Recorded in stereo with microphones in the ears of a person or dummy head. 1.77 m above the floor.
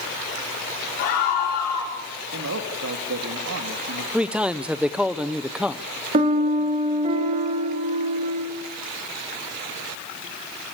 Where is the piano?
35° right (ahead or behind), 2.5 m.